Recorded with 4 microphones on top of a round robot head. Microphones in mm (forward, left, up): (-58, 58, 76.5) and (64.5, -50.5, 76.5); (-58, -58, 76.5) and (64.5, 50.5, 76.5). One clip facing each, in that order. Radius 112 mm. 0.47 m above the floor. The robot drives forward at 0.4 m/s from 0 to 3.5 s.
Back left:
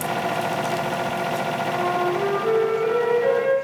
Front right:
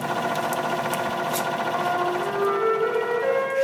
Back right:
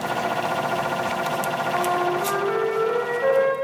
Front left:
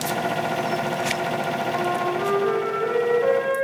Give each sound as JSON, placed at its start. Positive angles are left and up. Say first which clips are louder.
{"t": 1.7, "sound": "a flute", "louder": "back left 3 dB, back right 3 dB", "azimuth_deg": 135, "distance_m": 3.5}